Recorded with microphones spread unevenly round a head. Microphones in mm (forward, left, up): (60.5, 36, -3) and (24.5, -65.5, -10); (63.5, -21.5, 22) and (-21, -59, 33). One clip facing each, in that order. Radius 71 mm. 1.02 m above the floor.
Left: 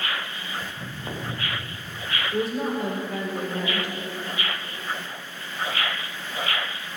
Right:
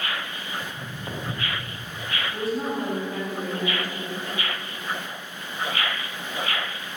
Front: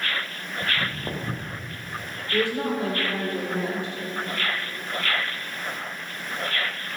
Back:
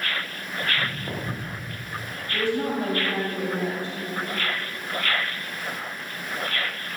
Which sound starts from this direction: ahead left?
A woman speaking, at 2.3 s.